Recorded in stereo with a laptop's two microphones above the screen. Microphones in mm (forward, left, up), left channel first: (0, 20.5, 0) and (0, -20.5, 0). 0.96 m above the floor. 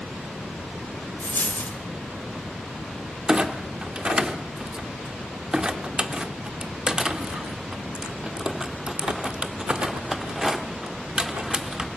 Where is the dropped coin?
50° left (ahead or behind), 1.9 m.